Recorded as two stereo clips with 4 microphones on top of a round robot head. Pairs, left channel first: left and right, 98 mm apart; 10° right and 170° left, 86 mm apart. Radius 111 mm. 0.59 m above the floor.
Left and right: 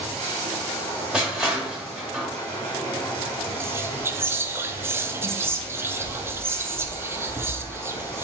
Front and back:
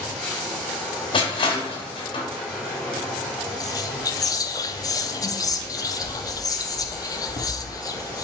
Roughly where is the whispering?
Ahead right.